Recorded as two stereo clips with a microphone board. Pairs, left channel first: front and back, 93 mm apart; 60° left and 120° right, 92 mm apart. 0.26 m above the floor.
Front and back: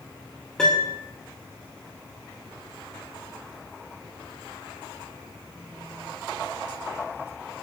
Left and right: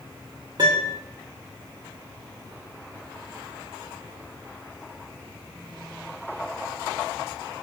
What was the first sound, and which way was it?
A piano, 80° right.